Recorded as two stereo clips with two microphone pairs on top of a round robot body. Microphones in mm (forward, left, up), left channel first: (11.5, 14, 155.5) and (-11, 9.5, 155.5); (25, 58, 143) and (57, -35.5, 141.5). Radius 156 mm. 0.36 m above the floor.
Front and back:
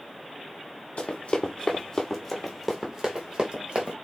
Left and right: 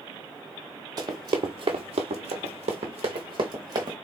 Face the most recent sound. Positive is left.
turn(degrees=-130)